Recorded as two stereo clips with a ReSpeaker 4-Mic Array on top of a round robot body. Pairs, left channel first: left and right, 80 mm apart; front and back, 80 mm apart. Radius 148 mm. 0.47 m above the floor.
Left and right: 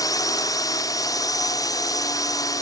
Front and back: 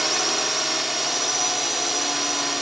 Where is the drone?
90° left.